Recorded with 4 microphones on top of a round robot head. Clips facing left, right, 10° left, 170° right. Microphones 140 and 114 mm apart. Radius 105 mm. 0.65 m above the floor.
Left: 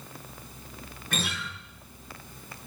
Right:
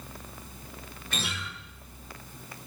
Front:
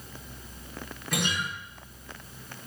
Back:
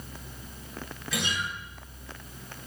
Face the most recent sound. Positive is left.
turn(degrees=50)